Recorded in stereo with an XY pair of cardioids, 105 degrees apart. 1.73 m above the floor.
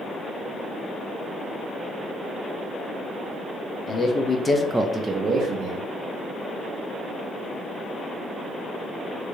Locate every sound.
3.9 s a man speaking: 45° left, 1.0 m; by 5.8 s 75° right, 1.0 m